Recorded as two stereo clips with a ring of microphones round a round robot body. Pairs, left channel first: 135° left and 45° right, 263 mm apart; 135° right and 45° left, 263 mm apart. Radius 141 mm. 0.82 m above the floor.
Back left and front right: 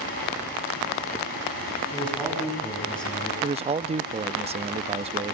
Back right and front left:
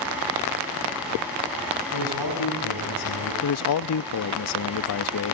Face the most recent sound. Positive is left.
turn(degrees=-110)